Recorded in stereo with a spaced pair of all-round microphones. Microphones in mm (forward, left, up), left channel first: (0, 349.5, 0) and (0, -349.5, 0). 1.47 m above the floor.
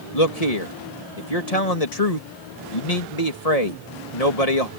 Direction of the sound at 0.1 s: 55° left (ahead or behind).